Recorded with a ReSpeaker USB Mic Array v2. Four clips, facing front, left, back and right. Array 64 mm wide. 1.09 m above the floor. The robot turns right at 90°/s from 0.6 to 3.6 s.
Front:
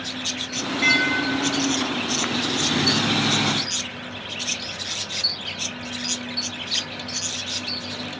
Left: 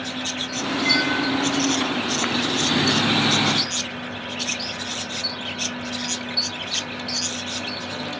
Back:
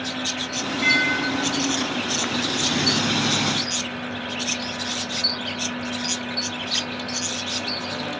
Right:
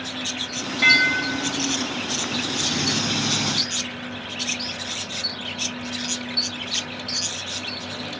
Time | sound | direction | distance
0.8 | dishes clattering | 80° right | 4 m